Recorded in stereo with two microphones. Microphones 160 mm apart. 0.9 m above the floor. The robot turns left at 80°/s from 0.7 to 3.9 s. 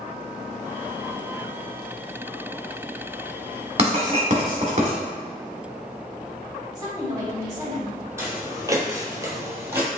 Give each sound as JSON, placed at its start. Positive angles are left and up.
{"t": 3.8, "sound": "writing", "side_deg": -40, "distance_m": 1.2}
{"t": 6.8, "sound": "a woman speaking", "side_deg": -25, "distance_m": 1.4}
{"t": 8.2, "sound": "footsteps", "side_deg": -15, "distance_m": 1.3}